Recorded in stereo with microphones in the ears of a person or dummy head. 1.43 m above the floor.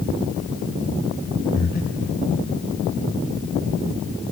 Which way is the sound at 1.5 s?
45° left (ahead or behind).